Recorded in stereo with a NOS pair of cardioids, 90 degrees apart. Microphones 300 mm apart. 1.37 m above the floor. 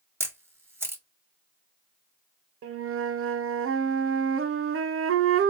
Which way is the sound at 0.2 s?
10° right.